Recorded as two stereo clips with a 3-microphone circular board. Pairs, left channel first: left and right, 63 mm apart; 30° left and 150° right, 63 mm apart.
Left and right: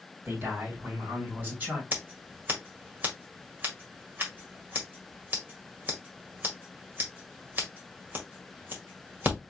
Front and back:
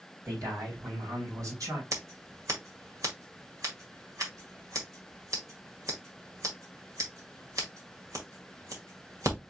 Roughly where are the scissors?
Behind right.